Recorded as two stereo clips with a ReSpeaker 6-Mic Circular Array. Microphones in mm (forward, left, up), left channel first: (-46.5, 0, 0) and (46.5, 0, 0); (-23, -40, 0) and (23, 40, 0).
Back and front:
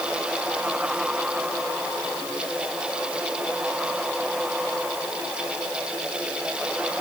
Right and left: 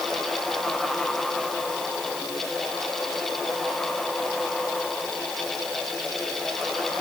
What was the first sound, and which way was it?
Only background noise.